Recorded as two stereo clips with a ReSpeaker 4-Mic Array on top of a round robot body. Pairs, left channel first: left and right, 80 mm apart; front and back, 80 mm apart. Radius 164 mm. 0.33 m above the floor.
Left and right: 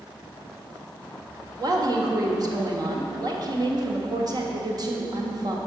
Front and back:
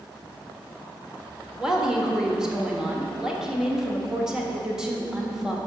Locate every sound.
1.6 s a woman speaking: 100° right, 1.9 m